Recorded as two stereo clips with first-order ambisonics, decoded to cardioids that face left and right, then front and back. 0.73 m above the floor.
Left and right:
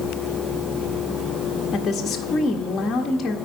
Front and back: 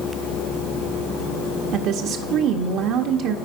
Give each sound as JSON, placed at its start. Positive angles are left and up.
{"t": 1.7, "sound": "a woman speaking", "azimuth_deg": 160, "distance_m": 0.7}